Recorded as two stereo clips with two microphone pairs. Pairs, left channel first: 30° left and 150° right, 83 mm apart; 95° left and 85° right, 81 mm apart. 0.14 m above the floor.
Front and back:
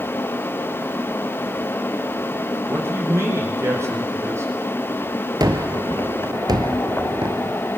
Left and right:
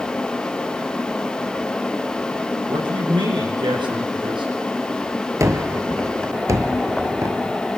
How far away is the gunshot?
About 1.6 m.